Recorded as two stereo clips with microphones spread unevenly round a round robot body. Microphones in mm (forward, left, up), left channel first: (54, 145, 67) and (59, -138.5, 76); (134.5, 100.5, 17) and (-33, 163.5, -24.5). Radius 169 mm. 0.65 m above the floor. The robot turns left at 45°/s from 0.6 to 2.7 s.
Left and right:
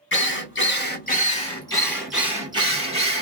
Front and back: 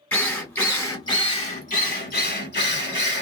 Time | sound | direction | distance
0.1 | a drill | 70° left | 1.5 m